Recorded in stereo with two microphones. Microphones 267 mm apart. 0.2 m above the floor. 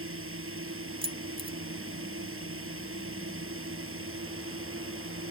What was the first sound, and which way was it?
A drone, 50° right (ahead or behind).